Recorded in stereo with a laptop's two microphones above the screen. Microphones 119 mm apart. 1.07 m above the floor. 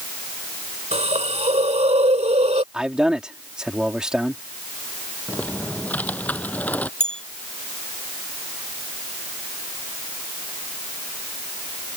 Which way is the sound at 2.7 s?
5° right (ahead or behind).